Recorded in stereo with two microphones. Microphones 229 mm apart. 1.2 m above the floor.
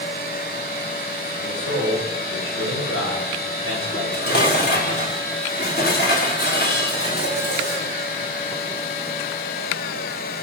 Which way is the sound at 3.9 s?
45° left (ahead or behind).